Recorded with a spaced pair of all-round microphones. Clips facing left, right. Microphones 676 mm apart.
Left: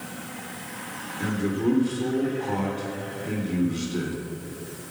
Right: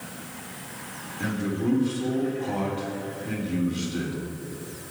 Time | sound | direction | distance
1.2 | a man speaking | 10° right (ahead or behind) | 3.5 m